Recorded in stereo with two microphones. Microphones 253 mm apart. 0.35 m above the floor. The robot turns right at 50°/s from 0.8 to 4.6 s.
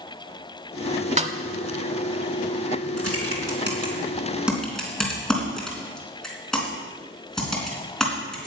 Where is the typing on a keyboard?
70° right (ahead or behind), 3 m; by 8.5 s centre (ahead or behind), 3 m.